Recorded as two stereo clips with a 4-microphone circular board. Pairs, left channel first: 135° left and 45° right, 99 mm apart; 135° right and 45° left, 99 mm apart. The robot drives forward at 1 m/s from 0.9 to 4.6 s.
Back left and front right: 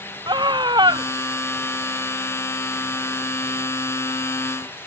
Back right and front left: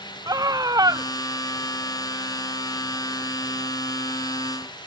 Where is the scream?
5° right.